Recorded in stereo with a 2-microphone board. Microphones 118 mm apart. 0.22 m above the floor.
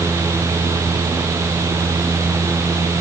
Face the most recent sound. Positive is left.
No sound to turn to.